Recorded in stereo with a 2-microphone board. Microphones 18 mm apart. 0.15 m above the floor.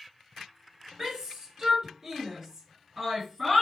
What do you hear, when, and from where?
1.0 s a shout: 35° right (ahead or behind), 2.5 m; by 3.6 s 10° right (ahead or behind), 1.7 m